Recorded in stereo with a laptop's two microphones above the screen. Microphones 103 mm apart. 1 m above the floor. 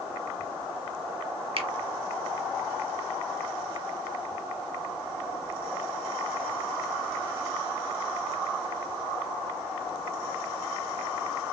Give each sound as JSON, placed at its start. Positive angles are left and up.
{"t": 1.6, "sound": "a finger snap", "side_deg": -60, "distance_m": 1.1}